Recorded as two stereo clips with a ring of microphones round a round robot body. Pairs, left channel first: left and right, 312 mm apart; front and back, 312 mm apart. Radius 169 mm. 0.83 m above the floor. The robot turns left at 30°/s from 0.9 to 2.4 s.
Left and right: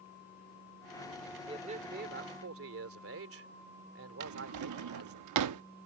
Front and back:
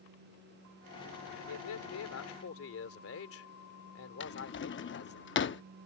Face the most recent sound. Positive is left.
turn(degrees=-55)